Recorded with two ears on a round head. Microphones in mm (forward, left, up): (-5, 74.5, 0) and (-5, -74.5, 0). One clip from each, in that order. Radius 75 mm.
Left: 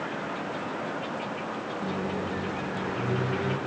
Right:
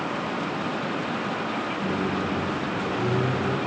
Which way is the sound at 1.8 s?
60° left (ahead or behind).